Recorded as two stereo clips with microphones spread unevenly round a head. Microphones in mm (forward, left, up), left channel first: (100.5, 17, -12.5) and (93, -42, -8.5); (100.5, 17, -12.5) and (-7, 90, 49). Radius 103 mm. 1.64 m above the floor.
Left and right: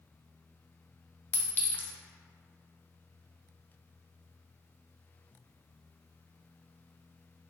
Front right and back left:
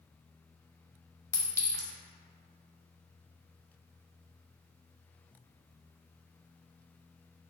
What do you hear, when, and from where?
1.3 s a clink: 70° left, 0.6 m